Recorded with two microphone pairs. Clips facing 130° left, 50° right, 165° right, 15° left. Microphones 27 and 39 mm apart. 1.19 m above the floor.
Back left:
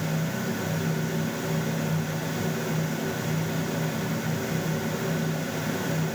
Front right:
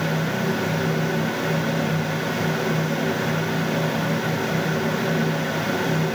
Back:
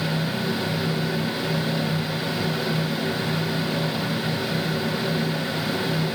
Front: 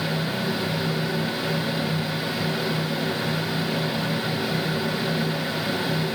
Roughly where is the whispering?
I don't hear whispering.